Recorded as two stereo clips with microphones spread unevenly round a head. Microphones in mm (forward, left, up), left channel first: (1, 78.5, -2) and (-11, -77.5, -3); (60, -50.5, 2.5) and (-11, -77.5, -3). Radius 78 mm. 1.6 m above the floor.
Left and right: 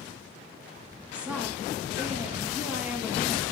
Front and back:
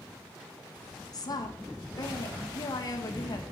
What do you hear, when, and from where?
1.1 s a woman speaking: 15° right, 2 m